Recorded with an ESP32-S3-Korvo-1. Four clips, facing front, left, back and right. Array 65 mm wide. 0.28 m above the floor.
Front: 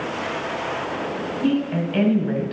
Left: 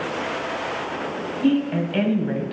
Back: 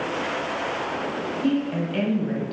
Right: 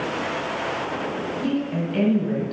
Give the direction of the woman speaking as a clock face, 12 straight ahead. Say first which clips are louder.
Left 6 dB, front 3 dB; 10 o'clock.